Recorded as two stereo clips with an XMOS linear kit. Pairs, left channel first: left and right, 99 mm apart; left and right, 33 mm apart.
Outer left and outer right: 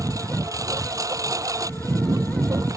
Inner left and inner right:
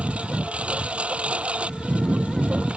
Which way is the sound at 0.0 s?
35° right (ahead or behind).